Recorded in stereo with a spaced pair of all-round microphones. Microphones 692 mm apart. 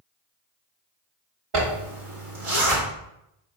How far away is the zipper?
About 1.2 m.